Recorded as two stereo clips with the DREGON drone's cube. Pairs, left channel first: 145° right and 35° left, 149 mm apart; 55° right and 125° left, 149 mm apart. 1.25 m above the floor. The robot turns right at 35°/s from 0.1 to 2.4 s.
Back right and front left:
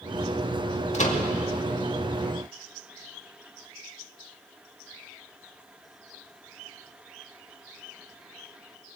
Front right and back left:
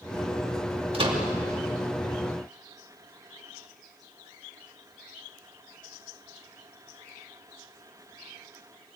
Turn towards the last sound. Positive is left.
turn(degrees=-135)